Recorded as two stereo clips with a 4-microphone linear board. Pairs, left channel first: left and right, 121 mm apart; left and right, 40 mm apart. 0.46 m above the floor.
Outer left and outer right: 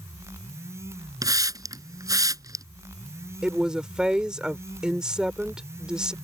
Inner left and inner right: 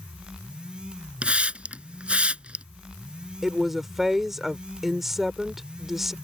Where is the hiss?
30° right (ahead or behind).